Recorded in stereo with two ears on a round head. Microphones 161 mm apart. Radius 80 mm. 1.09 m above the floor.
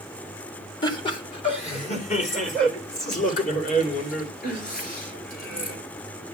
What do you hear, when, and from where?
0.8 s laughter: 25° left (ahead or behind), 1.7 m; by 5.8 s 55° left (ahead or behind), 5.5 m